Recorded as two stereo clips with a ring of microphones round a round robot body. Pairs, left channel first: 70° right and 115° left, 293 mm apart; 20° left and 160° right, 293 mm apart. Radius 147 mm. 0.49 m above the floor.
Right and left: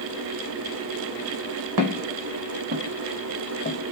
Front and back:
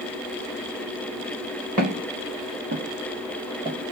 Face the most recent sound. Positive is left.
turn(degrees=-85)